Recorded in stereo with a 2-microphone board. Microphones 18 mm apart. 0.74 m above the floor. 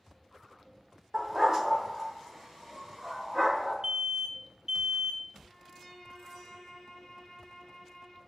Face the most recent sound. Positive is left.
turn(degrees=40)  # may be behind; listen again after turning